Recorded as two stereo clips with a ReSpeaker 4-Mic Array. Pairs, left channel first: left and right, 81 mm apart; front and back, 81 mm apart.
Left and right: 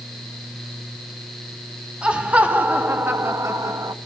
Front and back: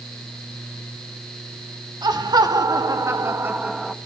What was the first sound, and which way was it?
Laughter, 165° right.